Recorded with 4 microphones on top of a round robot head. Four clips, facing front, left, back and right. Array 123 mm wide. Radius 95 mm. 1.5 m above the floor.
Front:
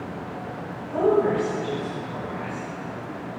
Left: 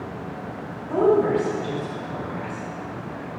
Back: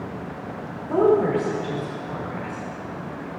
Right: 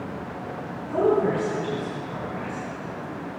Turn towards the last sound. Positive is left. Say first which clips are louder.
# left 3 dB, back 2 dB
turn(degrees=160)